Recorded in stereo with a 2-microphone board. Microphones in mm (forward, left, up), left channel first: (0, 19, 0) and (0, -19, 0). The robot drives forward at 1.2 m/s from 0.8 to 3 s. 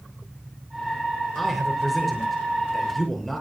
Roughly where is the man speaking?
Centre.